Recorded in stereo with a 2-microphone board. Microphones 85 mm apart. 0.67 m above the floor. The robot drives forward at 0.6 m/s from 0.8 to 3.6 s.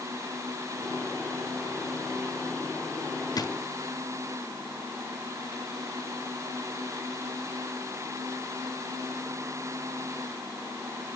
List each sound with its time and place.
3.4 s a drawer: 50° left (ahead or behind), 0.5 m; by 3.5 s 40° left (ahead or behind), 0.6 m